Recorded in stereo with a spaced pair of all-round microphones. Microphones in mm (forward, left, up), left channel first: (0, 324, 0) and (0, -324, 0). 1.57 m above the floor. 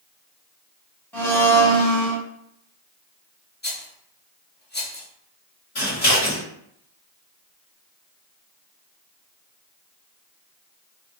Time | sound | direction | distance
1.1 | a blender | 5° left (ahead or behind) | 1.0 m
3.6 | a rattle | 15° left (ahead or behind) | 0.6 m
5.8 | scissors | 55° left (ahead or behind) | 1.2 m